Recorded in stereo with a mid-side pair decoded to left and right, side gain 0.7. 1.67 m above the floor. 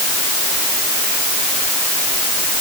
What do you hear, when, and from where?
Only background noise.